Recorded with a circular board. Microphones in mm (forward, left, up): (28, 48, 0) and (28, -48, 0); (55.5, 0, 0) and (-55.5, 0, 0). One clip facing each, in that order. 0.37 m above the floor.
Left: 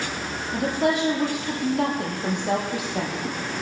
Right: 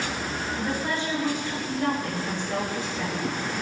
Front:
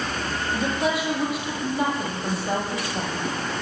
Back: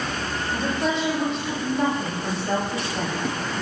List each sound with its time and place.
0.5 s a woman speaking: 80° left, 10 m